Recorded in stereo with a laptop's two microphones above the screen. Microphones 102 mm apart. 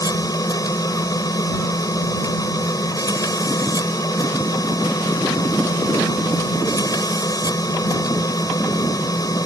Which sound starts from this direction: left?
A machine running, at 0.0 s.